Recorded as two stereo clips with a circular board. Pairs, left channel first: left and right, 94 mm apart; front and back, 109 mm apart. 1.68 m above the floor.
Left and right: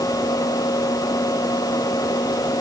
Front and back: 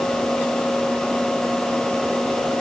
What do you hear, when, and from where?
Only background noise.